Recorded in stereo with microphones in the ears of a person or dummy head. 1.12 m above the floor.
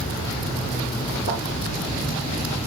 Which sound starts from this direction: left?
A thud, at 1.3 s.